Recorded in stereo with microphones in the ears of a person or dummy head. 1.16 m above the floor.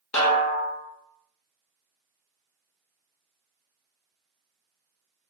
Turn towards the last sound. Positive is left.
turn(degrees=15)  # may be behind; listen again after turning